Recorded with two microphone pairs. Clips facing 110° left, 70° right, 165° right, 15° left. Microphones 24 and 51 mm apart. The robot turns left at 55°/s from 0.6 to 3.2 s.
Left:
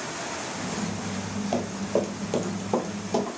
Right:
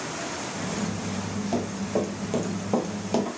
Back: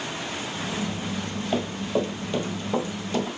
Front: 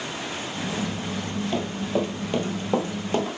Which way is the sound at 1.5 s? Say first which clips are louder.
Left 1 dB, back 1 dB; 145° left.